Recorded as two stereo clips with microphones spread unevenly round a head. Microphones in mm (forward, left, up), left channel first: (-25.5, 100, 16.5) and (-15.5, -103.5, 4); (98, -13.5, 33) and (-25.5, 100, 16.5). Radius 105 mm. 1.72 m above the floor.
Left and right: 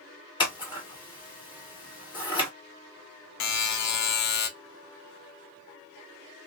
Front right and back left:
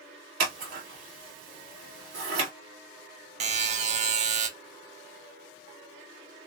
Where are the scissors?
160° left, 1.7 m.